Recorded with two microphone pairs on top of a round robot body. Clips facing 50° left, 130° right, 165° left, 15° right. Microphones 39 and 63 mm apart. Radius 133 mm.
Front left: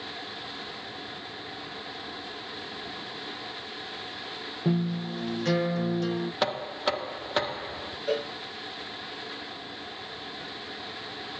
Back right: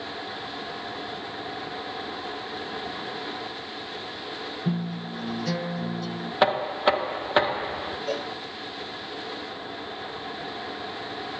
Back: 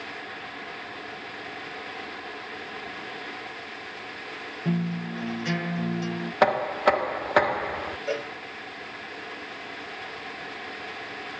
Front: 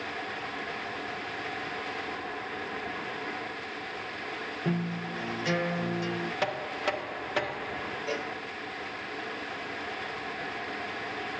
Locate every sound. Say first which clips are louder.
4.7 s a guitar: front left 4 dB, back 4 dB; 75° left, 5 m
6.4 s knocking: back right 9 dB, back 13 dB; 170° right, 0.6 m
8.1 s a cowbell: front left 3 dB, back 4 dB; 105° left, 6.5 m